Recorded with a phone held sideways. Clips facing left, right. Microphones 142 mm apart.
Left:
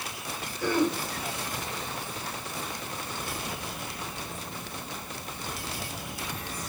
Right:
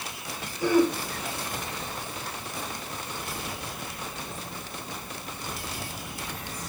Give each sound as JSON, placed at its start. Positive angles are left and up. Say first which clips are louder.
{"t": 0.6, "sound": "throat clearing", "louder": "right 4 dB", "side_deg": -10, "distance_m": 5.0}